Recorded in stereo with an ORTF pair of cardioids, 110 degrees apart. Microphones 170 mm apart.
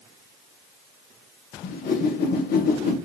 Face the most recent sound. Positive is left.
turn(degrees=65)